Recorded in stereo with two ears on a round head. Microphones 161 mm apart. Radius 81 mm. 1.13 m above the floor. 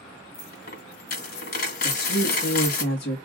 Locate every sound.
0.3 s a dropped coin: 55° left (ahead or behind), 2.0 m
1.8 s a woman speaking: 55° left (ahead or behind), 1.6 m